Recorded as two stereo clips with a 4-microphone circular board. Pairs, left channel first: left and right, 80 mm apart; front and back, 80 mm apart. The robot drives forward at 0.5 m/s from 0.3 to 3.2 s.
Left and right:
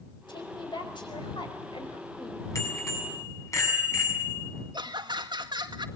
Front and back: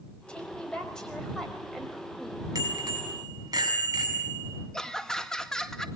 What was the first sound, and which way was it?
A woman speaking, 80° left.